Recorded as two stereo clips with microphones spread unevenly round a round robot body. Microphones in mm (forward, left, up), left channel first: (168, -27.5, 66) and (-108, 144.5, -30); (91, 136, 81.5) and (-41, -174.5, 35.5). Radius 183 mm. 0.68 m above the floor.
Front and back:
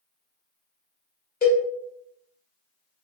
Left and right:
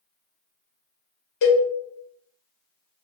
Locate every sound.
1.4 s a cowbell: 30° left, 1.5 m